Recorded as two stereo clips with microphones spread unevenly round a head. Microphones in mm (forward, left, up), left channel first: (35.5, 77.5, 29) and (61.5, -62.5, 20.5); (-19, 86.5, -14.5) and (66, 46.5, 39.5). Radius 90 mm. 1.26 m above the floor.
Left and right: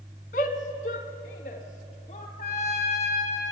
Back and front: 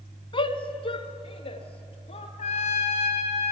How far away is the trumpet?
About 2.5 m.